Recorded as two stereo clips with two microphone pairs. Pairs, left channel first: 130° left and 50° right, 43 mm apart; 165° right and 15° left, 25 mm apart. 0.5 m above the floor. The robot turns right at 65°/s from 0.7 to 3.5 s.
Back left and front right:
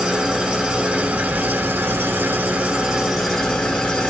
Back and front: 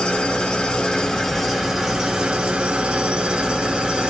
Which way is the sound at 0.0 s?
120° right.